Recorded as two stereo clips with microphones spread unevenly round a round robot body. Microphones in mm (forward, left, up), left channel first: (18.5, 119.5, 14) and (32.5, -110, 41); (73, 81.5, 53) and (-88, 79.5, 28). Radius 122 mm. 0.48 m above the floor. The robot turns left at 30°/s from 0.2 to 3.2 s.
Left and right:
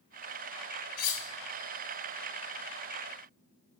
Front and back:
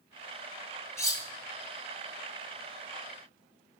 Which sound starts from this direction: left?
Cutlery clinking, at 1.0 s.